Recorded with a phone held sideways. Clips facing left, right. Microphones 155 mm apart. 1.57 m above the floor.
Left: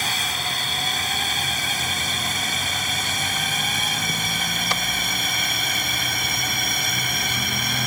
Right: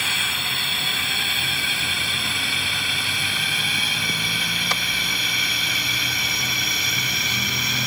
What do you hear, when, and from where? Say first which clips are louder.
0.0 s a drone: left 3 dB; 40° left (ahead or behind); by 7.9 s 50° left (ahead or behind)